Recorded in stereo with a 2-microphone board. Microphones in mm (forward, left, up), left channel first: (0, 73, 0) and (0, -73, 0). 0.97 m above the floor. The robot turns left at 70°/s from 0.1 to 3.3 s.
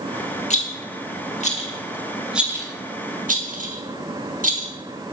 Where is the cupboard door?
No cupboard door in this recording.